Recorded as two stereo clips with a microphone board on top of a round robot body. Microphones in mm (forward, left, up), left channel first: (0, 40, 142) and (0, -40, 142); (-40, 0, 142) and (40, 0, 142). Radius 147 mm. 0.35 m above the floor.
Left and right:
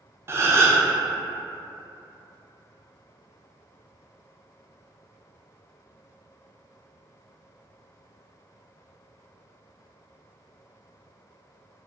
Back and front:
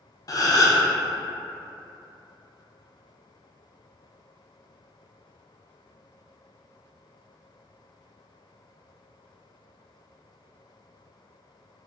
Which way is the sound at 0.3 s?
145° right.